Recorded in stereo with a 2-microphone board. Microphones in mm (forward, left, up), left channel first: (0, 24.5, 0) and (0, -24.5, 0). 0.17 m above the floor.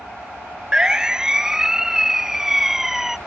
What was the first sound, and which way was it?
A siren, 15° right (ahead or behind).